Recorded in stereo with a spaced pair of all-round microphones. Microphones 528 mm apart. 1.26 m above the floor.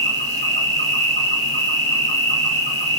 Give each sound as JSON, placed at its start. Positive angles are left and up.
{"t": 0.0, "sound": "an insect", "side_deg": 10, "distance_m": 1.4}